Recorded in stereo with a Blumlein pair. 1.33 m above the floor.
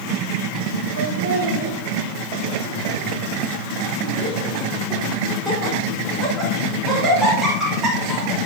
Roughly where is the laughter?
Ahead right.